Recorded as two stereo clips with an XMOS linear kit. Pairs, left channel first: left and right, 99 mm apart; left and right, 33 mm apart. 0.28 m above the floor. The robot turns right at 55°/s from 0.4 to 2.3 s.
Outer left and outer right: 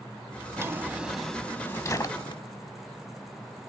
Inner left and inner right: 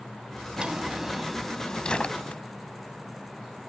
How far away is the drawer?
About 0.8 m.